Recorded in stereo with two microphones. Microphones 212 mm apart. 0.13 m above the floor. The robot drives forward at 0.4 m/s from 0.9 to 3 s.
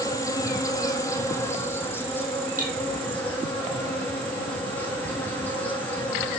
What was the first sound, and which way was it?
An insect, 15° left (ahead or behind).